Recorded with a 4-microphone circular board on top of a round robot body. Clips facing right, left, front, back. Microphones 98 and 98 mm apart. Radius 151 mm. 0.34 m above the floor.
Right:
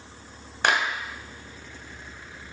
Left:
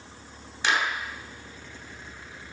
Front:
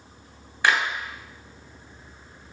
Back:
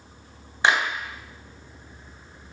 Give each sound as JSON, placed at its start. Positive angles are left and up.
{"t": 0.6, "sound": "a clap", "azimuth_deg": -115, "distance_m": 2.0}